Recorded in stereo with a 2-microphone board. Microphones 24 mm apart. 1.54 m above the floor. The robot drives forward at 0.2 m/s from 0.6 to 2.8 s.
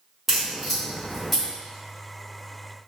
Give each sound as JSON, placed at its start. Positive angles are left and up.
{"t": 0.3, "sound": "a crack", "side_deg": -5, "distance_m": 1.5}